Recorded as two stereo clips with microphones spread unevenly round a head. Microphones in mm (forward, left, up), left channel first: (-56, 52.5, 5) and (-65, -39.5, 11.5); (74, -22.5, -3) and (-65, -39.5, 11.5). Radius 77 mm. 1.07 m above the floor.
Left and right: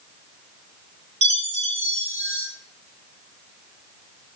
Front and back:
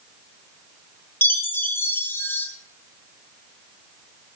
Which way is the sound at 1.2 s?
65° right.